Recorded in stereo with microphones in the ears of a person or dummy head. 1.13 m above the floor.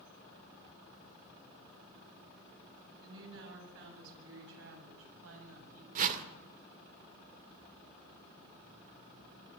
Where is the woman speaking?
70° right (ahead or behind), 9 m; by 5.8 s 85° right, 8.5 m.